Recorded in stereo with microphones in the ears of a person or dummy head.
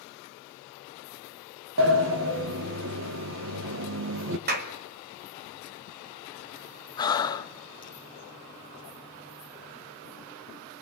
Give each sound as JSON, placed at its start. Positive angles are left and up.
{"t": 1.8, "sound": "a sliding door", "side_deg": -60, "distance_m": 1.3}
{"t": 4.5, "sound": "a clap", "side_deg": -45, "distance_m": 1.8}
{"t": 7.0, "sound": "breathing", "side_deg": 25, "distance_m": 1.1}